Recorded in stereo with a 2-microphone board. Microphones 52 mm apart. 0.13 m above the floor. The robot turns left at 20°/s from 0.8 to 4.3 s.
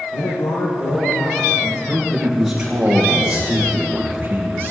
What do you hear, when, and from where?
0.1 s a man speaking: 75° left (ahead or behind), 5.5 m; by 1.8 s 65° left (ahead or behind), 5.5 m
1.9 s a man speaking: straight ahead, 5.5 m; by 4.7 s 45° right, 5.5 m